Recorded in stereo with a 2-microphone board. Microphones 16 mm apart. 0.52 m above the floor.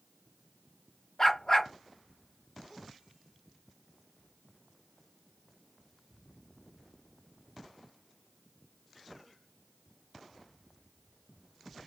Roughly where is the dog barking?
Left.